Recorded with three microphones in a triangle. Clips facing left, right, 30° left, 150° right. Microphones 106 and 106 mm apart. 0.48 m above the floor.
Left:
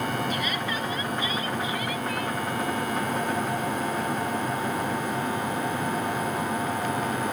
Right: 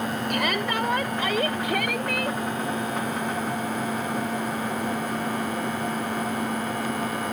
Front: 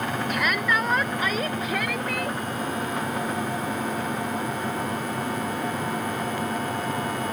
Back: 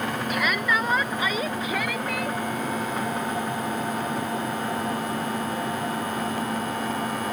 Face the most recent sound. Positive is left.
turn(degrees=-60)